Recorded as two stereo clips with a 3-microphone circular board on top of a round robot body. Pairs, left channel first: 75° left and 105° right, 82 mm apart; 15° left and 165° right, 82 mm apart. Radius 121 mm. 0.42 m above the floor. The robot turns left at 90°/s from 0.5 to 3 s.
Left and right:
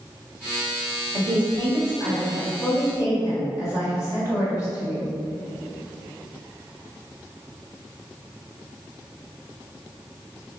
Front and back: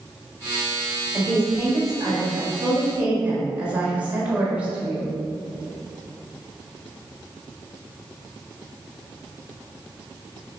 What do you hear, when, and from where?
1.1 s a woman speaking: 70° right, 1.8 m; by 5.1 s 120° left, 1.8 m